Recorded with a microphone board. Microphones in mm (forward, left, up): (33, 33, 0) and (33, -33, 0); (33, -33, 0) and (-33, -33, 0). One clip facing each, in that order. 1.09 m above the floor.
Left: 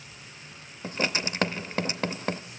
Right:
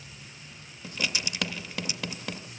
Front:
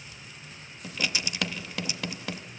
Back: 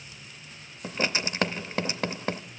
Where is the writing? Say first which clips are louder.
Left 4 dB, back 3 dB; 135° left, 0.5 m.